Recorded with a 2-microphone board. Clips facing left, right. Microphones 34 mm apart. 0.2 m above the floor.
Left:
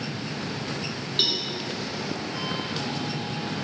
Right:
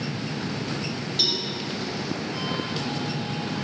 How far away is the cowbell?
About 1.6 m.